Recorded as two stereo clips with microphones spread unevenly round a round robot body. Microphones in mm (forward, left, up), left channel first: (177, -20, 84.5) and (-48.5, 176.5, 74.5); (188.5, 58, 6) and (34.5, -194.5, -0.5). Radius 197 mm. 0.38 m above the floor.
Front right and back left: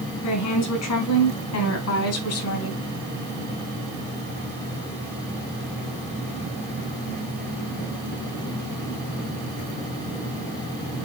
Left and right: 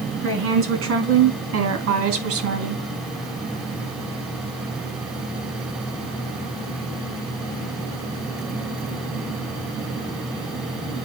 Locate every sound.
0.2 s a woman speaking: 80° right, 4.5 m; by 2.9 s 90° right, 2.5 m